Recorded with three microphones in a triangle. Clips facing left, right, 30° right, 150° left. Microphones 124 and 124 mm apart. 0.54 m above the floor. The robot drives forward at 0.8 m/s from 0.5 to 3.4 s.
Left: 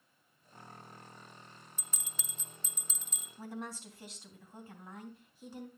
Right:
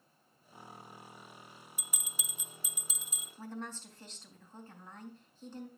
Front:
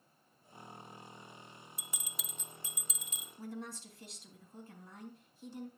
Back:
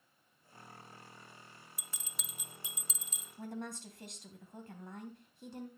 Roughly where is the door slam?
I don't hear a door slam.